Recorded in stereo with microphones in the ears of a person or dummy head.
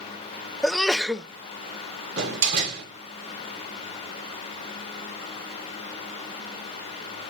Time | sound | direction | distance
0.6 | a sneeze | 5° right (ahead or behind) | 0.5 m
2.2 | a door slam | 70° right (ahead or behind) | 2.5 m